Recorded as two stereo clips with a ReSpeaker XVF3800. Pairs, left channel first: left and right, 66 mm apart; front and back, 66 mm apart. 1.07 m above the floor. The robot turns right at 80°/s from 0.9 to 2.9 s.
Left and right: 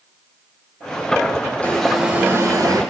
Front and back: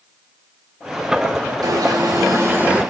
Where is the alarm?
160° left, 4 m; by 2.8 s 105° right, 4 m.